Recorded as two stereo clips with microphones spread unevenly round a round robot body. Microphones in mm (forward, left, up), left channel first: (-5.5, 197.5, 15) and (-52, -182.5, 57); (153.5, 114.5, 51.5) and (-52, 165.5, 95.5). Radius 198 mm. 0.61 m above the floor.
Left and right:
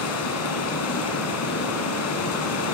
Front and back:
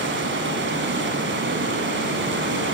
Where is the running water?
135° left, 3.5 m.